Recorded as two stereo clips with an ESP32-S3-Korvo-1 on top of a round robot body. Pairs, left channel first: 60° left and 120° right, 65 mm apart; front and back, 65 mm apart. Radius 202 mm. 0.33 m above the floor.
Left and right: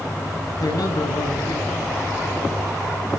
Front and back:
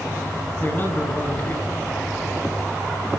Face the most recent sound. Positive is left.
turn(degrees=60)